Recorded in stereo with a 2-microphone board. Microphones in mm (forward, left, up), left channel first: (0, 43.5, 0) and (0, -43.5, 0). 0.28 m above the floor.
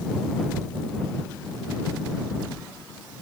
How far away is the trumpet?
No trumpet in this recording.